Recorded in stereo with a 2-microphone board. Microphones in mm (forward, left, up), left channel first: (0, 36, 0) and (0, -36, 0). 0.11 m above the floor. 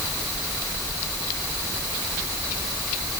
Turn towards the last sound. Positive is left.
No sound to turn to.